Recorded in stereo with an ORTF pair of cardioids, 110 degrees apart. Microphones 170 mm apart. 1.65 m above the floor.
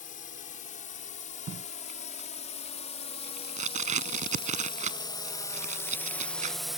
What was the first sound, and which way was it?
A drone, 50° left.